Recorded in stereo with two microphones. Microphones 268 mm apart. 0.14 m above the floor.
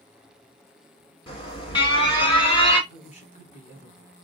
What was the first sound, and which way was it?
An alarm, 20° left (ahead or behind).